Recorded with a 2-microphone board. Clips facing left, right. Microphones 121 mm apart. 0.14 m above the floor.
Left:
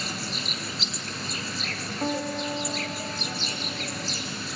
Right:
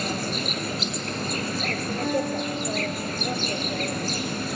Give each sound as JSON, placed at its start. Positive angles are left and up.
{"t": 0.0, "sound": "an insect", "side_deg": -50, "distance_m": 1.6}
{"t": 2.0, "sound": "a guitar", "side_deg": 50, "distance_m": 9.5}